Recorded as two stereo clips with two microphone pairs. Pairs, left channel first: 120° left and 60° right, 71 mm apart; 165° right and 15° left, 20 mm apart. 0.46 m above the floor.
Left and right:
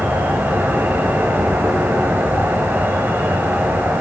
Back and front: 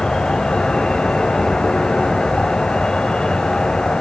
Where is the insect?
120° right, 1.4 m.